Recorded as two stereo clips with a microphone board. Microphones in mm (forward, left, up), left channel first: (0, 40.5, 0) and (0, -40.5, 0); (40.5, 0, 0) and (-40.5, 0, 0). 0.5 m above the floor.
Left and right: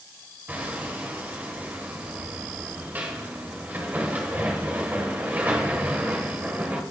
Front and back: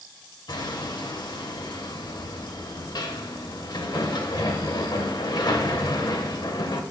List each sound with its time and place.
0.5 s hammering: 25° right, 1.5 m